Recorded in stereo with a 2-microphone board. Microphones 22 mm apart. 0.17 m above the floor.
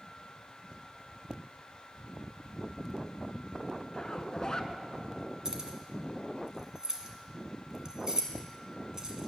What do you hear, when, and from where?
3.9 s a zipper: 35° left (ahead or behind), 0.6 m
5.5 s keys jangling: 30° right (ahead or behind), 1.2 m